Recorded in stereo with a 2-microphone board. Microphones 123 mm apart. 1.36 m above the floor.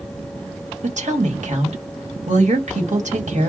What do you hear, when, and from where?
0.8 s a woman speaking: 80° right, 1.8 m